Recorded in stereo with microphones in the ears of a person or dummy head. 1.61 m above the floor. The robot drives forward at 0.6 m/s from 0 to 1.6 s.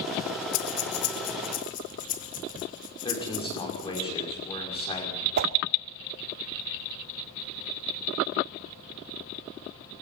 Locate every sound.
0.5 s breathing: 60° left (ahead or behind), 1.0 m; by 4.0 s 40° left (ahead or behind), 1.3 m
3.0 s a man speaking: 25° left (ahead or behind), 6 m
5.4 s a whoosh: 55° right (ahead or behind), 0.8 m